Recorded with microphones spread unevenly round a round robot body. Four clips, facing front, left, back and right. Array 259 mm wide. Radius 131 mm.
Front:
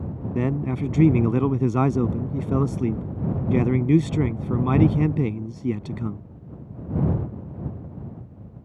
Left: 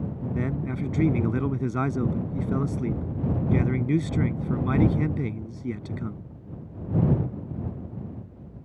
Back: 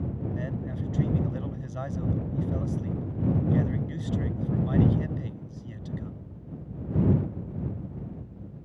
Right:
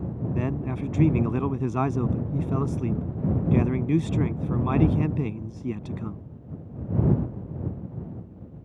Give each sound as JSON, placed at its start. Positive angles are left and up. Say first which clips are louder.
{"t": 0.3, "sound": "a man speaking", "louder": "even, front 9 dB", "azimuth_deg": 0}